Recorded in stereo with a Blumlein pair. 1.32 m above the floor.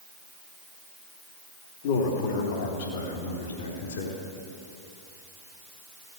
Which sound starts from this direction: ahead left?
A man speaking, at 1.8 s.